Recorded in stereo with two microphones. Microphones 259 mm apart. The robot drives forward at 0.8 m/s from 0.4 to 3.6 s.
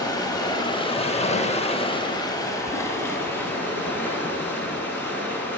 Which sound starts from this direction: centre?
Running water, at 0.0 s.